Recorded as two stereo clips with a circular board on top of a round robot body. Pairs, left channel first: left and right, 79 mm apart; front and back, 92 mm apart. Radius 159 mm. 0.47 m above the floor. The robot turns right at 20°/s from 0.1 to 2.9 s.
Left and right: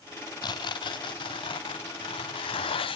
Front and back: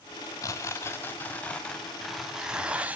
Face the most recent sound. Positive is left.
turn(degrees=105)